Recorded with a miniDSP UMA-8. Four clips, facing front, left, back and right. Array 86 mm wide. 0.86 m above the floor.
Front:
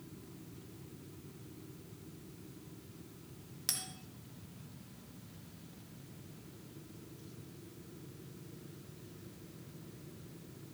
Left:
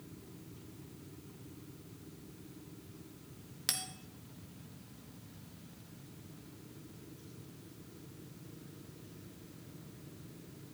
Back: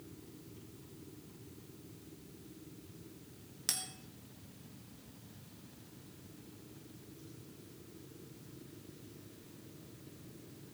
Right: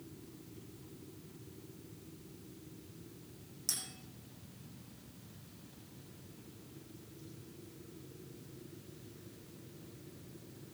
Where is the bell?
100° left, 1.1 m.